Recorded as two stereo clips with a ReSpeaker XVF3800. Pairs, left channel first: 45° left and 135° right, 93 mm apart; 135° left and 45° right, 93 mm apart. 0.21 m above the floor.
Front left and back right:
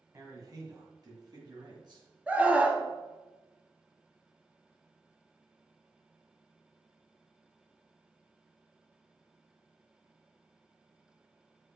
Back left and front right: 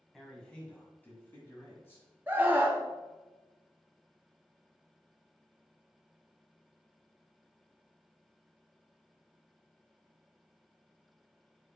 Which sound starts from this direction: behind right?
A man speaking, at 0.1 s.